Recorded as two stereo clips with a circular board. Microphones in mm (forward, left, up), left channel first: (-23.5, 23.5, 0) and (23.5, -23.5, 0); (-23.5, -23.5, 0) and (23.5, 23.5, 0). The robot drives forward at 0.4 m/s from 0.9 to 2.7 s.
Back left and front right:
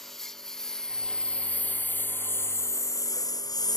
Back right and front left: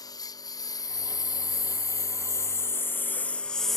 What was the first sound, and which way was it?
A lawn mower, 140° right.